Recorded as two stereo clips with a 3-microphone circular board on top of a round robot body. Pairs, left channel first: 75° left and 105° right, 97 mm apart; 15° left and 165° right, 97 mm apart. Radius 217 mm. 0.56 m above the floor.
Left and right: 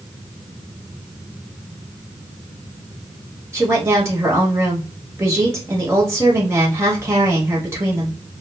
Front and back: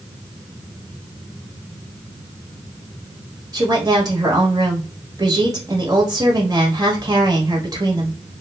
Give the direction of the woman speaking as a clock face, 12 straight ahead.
5 o'clock.